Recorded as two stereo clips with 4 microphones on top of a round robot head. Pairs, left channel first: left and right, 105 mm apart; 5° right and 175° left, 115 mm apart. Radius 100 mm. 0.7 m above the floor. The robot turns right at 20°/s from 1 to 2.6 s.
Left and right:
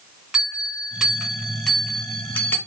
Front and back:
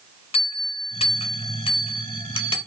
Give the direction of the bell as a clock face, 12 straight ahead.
12 o'clock.